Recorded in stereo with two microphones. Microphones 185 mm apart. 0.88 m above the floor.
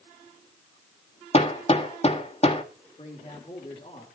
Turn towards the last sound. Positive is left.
turn(degrees=35)  # may be behind; listen again after turning